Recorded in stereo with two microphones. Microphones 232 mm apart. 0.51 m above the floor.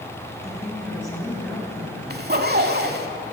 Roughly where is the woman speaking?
Centre.